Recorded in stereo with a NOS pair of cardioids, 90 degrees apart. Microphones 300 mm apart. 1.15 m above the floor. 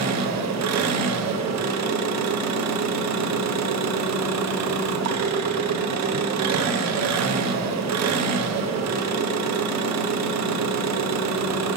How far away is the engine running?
About 0.9 m.